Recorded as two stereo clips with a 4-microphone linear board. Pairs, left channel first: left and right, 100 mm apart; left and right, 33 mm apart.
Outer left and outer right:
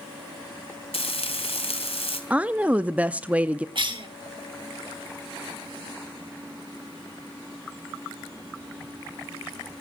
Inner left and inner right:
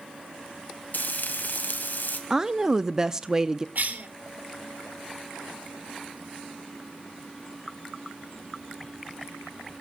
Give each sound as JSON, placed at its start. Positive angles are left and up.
{"t": 0.9, "sound": "frying", "side_deg": 75, "distance_m": 2.0}
{"t": 2.3, "sound": "a woman speaking", "side_deg": -15, "distance_m": 0.6}
{"t": 3.8, "sound": "a cough", "side_deg": -55, "distance_m": 2.0}